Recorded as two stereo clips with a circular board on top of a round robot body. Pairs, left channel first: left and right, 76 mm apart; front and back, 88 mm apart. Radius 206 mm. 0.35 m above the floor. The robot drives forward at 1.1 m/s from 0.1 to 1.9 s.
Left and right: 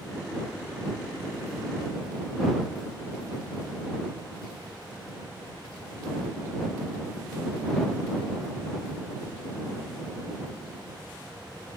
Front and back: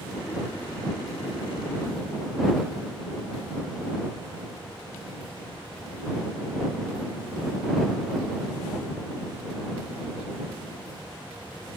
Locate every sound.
Only background noise.